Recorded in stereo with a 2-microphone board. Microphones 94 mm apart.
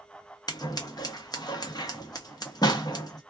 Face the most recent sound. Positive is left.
turn(degrees=45)  # may be behind; listen again after turning